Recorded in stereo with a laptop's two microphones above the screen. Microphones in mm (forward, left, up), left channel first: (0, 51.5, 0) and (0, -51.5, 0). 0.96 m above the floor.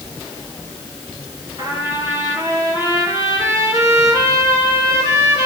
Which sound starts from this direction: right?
A trumpet, at 1.6 s.